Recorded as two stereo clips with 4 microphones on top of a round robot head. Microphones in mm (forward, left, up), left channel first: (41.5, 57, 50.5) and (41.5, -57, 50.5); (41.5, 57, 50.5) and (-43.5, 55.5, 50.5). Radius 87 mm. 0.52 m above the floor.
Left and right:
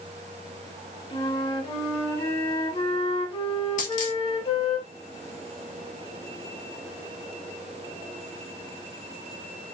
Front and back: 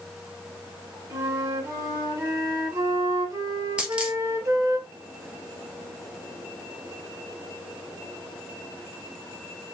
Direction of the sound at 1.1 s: 130° left.